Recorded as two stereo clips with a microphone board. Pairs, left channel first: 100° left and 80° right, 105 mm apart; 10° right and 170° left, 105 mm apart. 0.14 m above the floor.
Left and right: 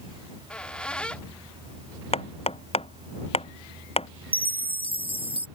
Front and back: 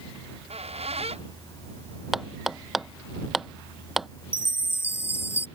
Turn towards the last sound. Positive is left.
turn(degrees=-70)